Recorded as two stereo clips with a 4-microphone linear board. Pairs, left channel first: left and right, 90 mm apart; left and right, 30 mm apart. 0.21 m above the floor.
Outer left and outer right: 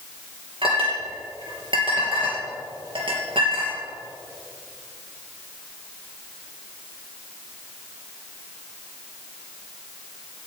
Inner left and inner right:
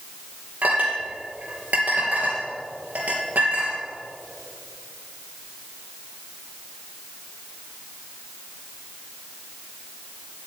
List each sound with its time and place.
0.6 s a clink: 70° right (ahead or behind), 3 m